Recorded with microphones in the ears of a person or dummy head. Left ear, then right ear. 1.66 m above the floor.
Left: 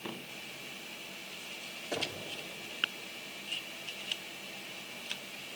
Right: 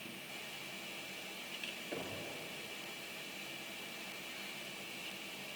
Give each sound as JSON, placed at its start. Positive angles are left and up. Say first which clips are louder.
{"t": 1.9, "sound": "knocking", "louder": "left 12 dB", "side_deg": 35, "distance_m": 3.5}